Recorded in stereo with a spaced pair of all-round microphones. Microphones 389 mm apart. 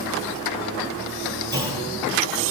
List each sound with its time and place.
1.5 s a clunk: 25° right (ahead or behind), 1.3 m